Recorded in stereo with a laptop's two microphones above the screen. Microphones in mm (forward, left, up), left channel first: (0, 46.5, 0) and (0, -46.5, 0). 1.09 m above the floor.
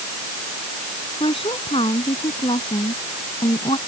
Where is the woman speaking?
75° left (ahead or behind); by 3.8 s 80° left.